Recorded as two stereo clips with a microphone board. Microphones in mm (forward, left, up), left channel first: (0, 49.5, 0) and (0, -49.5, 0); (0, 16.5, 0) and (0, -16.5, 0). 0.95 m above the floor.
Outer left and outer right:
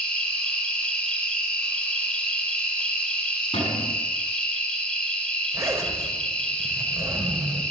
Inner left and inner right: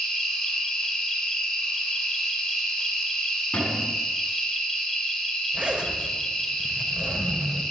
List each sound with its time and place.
0.0 s an insect: 10° left (ahead or behind), 4 m
3.5 s a cupboard door: 65° left (ahead or behind), 8 m
5.5 s a zipper: 30° right (ahead or behind), 5 m